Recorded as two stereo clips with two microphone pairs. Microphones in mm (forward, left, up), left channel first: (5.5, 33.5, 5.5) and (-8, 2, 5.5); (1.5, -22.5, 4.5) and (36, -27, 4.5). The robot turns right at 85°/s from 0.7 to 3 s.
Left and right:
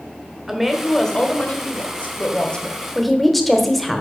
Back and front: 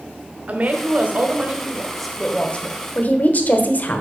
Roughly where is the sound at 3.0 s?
Behind left.